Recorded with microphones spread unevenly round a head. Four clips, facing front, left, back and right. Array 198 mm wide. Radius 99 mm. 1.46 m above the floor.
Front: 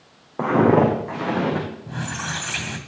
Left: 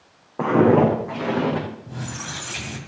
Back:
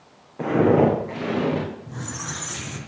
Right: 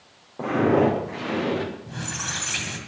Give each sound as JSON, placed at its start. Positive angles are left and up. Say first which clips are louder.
{"t": 0.4, "sound": "footsteps", "louder": "left 4 dB, front 1 dB", "azimuth_deg": 30, "distance_m": 5.0}
{"t": 1.9, "sound": "a squeak", "louder": "even, front 4 dB", "azimuth_deg": 10, "distance_m": 2.0}